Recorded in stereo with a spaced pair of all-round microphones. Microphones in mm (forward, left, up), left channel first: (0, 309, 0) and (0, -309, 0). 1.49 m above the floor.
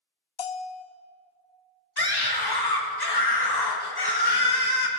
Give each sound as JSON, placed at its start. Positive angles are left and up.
{"t": 0.4, "sound": "a bell", "side_deg": 60, "distance_m": 0.6}
{"t": 2.0, "sound": "a scream", "side_deg": 35, "distance_m": 1.7}